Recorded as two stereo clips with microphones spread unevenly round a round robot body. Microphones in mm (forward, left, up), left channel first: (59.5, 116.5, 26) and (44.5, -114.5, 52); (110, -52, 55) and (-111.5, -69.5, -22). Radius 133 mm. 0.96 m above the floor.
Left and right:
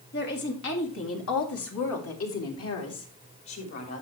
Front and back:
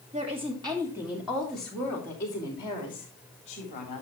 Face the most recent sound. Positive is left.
turn(degrees=70)